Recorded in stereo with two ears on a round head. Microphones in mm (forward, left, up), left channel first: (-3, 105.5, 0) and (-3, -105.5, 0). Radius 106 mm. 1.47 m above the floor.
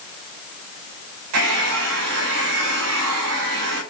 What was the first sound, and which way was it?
A hair dryer, 75° right (ahead or behind).